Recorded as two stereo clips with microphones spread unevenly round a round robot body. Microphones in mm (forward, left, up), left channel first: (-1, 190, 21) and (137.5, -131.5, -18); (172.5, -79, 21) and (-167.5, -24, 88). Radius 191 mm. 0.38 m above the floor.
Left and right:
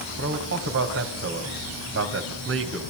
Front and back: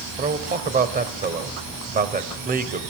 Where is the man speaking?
120° right, 2 m.